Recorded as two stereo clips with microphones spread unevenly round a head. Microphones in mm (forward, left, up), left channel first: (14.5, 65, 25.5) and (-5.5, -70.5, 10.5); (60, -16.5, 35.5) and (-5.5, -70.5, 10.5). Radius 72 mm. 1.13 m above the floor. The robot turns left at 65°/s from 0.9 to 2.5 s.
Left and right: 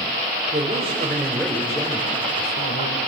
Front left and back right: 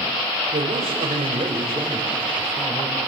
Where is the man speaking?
150° right, 5 m; by 3.0 s 105° left, 5 m.